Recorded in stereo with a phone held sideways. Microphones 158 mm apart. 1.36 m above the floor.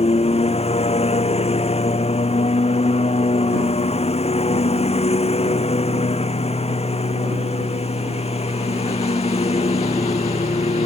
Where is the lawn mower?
40° left (ahead or behind).